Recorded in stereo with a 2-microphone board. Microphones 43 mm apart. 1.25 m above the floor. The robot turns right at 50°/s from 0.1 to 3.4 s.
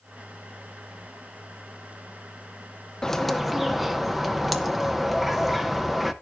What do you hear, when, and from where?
3.0 s a bird: 15° left (ahead or behind), 0.8 m; by 6.1 s 5° right (ahead or behind), 0.8 m